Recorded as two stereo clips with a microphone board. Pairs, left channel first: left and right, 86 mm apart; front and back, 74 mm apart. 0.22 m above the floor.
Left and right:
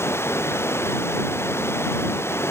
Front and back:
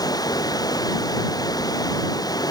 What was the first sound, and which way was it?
Running water, 30° left.